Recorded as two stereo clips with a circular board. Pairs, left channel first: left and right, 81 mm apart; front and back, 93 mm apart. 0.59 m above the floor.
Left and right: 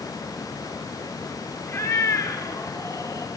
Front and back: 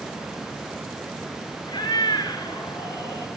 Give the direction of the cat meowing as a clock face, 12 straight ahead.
10 o'clock.